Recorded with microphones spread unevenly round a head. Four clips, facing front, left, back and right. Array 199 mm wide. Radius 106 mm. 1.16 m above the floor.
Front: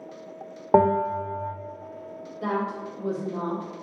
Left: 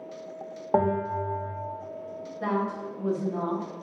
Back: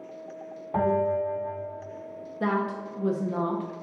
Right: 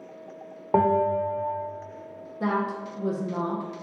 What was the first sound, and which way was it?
A bell, straight ahead.